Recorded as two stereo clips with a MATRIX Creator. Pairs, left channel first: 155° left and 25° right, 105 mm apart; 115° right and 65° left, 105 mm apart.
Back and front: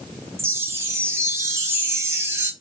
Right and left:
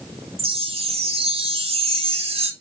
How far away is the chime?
About 0.6 m.